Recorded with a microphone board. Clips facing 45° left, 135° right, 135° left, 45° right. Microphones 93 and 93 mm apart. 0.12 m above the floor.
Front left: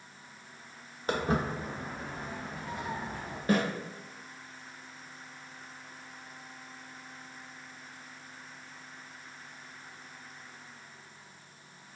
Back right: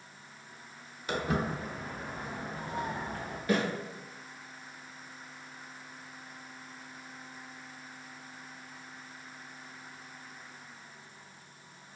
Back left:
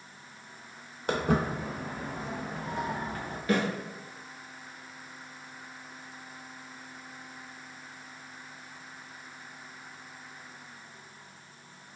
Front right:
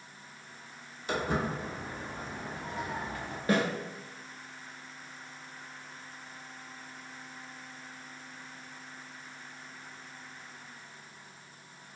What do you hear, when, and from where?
1.1 s footsteps: 95° left, 0.9 m; by 3.4 s 170° right, 0.9 m
3.5 s a snare drum: 5° left, 1.0 m